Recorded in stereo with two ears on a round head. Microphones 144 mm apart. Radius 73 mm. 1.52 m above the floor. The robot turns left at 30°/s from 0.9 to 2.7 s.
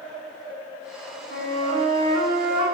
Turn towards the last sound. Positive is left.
turn(degrees=-160)